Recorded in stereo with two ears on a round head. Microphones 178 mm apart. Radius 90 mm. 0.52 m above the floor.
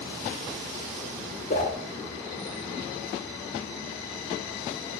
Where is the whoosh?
40° left (ahead or behind), 1.7 m.